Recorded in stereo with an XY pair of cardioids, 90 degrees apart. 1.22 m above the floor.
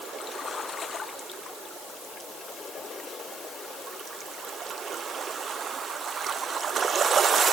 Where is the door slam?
No door slam in this recording.